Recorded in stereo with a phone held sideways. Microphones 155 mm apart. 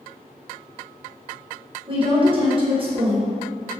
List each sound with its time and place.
1.9 s a woman speaking: 35° right (ahead or behind), 0.9 m